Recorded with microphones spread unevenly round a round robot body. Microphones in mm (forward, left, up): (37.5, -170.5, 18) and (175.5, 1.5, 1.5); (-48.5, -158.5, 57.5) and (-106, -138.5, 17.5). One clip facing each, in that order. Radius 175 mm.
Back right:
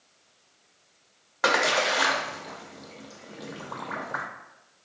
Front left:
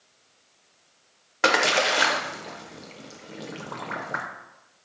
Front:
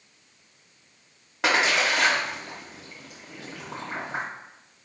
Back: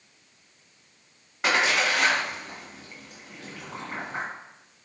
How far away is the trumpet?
I don't hear a trumpet.